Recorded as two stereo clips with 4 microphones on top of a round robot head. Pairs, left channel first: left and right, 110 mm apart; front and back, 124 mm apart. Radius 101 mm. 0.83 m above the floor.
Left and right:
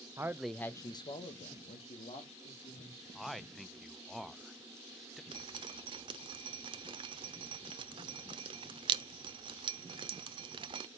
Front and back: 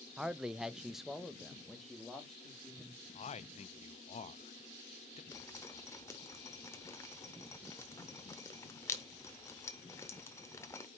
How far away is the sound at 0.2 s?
About 0.8 m.